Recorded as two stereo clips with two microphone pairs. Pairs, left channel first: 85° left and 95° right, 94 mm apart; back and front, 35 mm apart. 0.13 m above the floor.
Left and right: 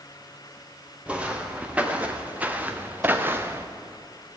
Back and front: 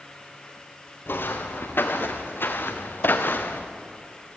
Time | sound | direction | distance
1.1 | footsteps | 175° right | 2.5 m